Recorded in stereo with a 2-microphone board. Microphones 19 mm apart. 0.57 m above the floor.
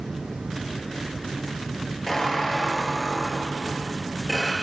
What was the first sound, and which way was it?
A squeak, 5° left (ahead or behind).